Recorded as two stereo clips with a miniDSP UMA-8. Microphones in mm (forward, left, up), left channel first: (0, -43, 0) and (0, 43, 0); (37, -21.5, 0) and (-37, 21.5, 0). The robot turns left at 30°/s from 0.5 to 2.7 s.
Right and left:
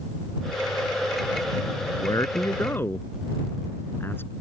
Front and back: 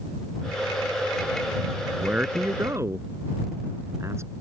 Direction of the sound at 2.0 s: 130° right.